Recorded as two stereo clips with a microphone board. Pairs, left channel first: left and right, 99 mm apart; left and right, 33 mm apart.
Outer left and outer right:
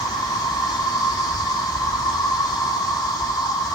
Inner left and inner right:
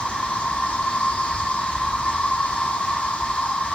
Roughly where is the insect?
Left.